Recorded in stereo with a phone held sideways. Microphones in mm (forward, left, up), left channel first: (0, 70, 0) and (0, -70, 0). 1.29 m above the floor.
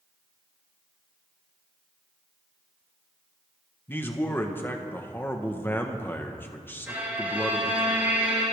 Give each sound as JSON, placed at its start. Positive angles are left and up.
{"t": 3.9, "sound": "a man speaking", "side_deg": 15, "distance_m": 1.4}
{"t": 6.9, "sound": "a violin", "side_deg": -10, "distance_m": 7.0}